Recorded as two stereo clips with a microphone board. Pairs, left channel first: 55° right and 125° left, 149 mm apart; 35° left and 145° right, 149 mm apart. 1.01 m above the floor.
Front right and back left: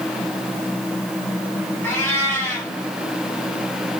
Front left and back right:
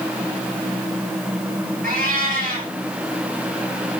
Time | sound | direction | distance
1.8 | a cat meowing | 130° right | 5.5 m